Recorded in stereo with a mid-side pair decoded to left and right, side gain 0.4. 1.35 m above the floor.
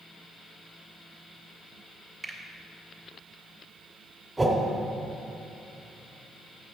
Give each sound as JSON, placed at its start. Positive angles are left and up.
{"t": 2.2, "sound": "a finger snap", "azimuth_deg": -45, "distance_m": 1.8}
{"t": 4.4, "sound": "a whoosh", "azimuth_deg": -25, "distance_m": 2.0}